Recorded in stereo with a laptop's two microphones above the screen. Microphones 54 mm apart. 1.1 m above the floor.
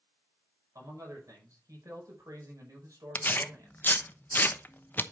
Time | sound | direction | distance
0.8 | a man speaking | 85° right | 5 m
3.1 | tearing paper | 35° left (ahead or behind) | 0.9 m